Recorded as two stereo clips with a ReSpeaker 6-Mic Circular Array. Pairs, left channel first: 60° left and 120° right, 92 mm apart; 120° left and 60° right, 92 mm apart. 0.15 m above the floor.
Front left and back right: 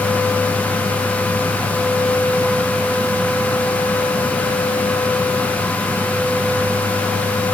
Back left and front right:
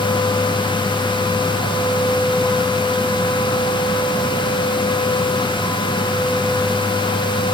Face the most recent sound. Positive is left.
No sound to turn to.